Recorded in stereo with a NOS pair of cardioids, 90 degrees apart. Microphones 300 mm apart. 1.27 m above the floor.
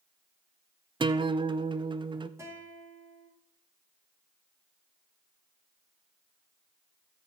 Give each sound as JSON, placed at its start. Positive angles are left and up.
{"t": 1.0, "sound": "a guitar", "azimuth_deg": -15, "distance_m": 0.6}
{"t": 2.4, "sound": "a guitar", "azimuth_deg": -10, "distance_m": 3.5}